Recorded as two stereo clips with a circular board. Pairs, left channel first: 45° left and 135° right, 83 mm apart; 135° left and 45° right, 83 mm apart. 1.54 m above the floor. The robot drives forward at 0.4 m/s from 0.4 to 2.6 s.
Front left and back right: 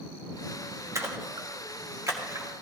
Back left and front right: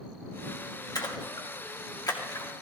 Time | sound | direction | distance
0.9 | a splash | 170° left | 1.3 m